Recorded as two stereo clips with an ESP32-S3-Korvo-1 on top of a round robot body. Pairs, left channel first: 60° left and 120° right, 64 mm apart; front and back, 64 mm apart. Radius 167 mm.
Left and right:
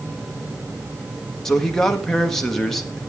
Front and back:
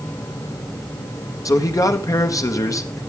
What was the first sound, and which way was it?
A man speaking, 25° right.